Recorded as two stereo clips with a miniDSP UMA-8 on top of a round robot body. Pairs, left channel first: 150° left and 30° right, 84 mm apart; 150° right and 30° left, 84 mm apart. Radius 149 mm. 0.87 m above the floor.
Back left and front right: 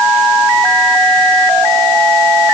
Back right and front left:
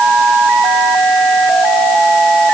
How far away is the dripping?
No dripping in this recording.